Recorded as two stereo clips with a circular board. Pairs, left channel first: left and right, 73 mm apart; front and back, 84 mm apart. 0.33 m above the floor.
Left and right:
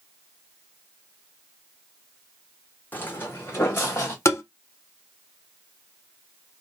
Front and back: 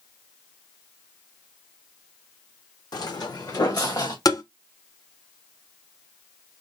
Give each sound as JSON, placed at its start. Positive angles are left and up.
{"t": 2.9, "sound": "footsteps", "azimuth_deg": 30, "distance_m": 0.9}
{"t": 4.2, "sound": "tapping", "azimuth_deg": 40, "distance_m": 0.8}